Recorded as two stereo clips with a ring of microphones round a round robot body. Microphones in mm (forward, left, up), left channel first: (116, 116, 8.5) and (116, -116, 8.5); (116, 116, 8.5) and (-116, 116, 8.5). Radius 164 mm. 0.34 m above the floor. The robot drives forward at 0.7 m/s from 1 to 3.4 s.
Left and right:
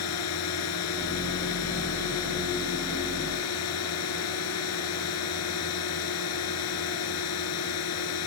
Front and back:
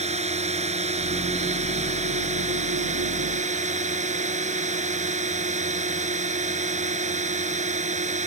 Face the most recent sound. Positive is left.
turn(degrees=120)